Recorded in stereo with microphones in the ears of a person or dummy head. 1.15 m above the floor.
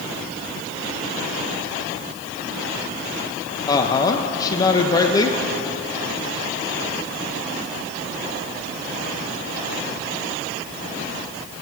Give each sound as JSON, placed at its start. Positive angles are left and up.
{"t": 3.7, "sound": "a woman speaking", "side_deg": 25, "distance_m": 0.6}